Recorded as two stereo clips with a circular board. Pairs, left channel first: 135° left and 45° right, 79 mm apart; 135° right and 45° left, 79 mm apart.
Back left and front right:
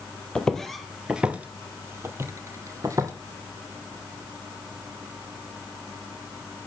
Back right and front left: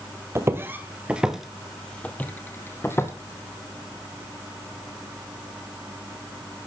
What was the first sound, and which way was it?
Footsteps, 60° left.